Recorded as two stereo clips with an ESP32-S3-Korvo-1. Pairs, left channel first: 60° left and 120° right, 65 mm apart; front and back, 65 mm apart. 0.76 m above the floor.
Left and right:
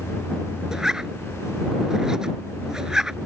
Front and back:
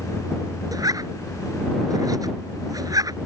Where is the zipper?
160° left.